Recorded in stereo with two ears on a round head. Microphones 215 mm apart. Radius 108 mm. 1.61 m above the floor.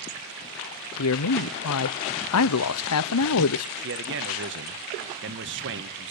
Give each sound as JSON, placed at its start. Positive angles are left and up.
{"t": 1.0, "sound": "a man speaking", "side_deg": 70, "distance_m": 0.6}
{"t": 3.8, "sound": "a man speaking", "side_deg": -50, "distance_m": 1.5}